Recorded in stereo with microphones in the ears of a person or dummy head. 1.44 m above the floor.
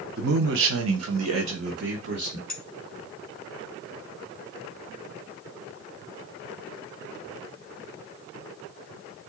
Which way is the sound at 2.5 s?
5° left (ahead or behind).